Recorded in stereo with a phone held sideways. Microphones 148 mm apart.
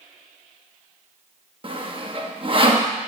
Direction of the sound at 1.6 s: 40° right (ahead or behind).